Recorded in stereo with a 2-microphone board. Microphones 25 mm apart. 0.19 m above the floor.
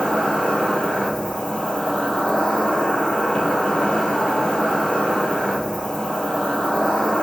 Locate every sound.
0.0 s an insect: 55° left (ahead or behind), 0.8 m